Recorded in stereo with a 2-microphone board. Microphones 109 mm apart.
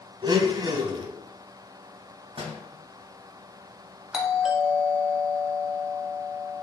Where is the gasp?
I don't hear a gasp.